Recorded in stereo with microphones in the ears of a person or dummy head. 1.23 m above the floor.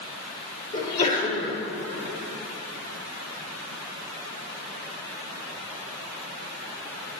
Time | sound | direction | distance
0.7 | a sneeze | 50° left (ahead or behind) | 2.5 m